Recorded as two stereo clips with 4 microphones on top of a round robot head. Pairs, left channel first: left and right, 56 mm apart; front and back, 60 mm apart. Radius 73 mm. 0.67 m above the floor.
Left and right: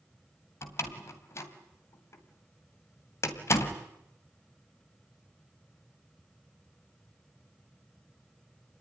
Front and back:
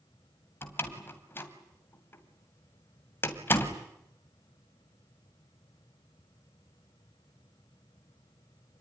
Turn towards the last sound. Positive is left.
turn(degrees=55)